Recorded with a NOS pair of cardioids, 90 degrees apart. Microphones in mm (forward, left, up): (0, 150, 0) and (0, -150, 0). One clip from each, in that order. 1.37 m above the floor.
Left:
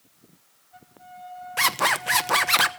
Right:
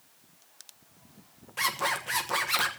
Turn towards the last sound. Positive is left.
turn(degrees=50)